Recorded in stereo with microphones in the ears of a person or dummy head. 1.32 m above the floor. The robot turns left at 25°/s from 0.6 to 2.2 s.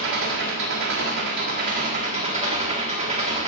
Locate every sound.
0.0 s an engine running: 105° right, 1.7 m; by 3.5 s 145° right, 1.7 m